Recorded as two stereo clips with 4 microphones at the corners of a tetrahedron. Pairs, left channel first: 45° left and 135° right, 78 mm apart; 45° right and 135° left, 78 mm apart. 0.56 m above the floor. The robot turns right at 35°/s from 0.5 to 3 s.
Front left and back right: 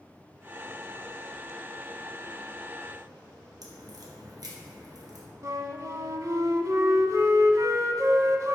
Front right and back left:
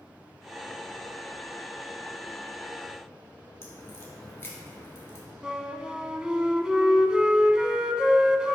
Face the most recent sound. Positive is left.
turn(degrees=-150)